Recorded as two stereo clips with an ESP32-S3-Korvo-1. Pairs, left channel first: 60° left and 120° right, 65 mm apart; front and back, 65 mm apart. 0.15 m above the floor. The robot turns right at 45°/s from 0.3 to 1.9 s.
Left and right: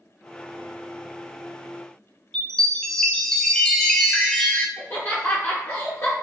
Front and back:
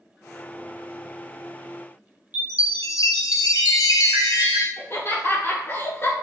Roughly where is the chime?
Ahead.